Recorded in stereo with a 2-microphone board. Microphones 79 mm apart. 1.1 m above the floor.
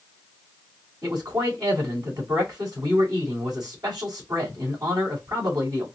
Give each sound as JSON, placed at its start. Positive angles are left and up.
{"t": 1.0, "sound": "a man speaking", "side_deg": -60, "distance_m": 3.0}